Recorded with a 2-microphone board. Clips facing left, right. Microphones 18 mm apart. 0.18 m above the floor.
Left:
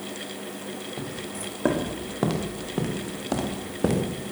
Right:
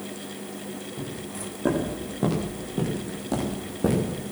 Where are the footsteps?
35° left (ahead or behind), 7 m; by 4.3 s 20° left (ahead or behind), 6.5 m.